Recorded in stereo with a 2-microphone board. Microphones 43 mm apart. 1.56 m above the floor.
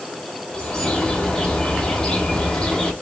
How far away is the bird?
About 1.2 m.